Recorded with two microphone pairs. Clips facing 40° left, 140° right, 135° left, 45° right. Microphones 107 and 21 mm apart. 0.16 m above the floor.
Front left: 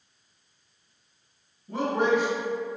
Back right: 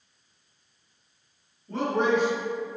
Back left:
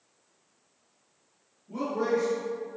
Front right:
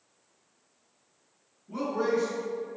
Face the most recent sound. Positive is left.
turn(degrees=-60)